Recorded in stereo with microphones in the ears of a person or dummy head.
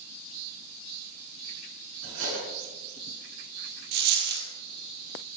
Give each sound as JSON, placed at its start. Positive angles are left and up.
{"t": 2.0, "sound": "cutlery clinking", "side_deg": -80, "distance_m": 7.5}
{"t": 3.9, "sound": "a dropped coin", "side_deg": -60, "distance_m": 2.5}